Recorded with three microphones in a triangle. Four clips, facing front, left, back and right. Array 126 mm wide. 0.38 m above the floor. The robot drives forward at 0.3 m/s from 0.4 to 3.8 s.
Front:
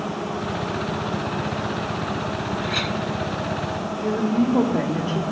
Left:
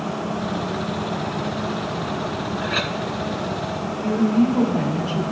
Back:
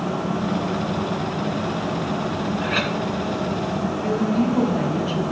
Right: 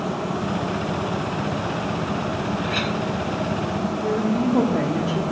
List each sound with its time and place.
2.6 s a clink: 140° left, 0.8 m; by 3.0 s 145° left, 0.9 m
4.0 s a woman speaking: 40° right, 1.6 m